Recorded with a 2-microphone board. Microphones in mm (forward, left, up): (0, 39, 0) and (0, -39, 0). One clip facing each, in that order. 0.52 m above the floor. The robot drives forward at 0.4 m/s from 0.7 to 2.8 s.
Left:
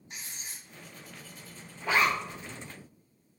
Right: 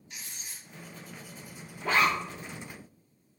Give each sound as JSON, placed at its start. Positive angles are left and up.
{"t": 0.1, "sound": "writing", "side_deg": 30, "distance_m": 0.7}
{"t": 1.8, "sound": "a zipper", "side_deg": -55, "distance_m": 1.6}